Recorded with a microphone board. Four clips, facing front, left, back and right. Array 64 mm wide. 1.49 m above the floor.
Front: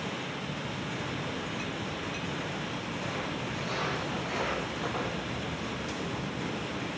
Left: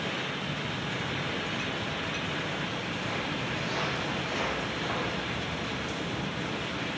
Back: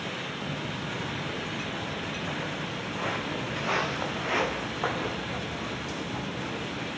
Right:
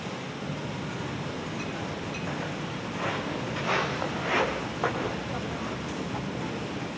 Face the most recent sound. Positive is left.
turn(degrees=-115)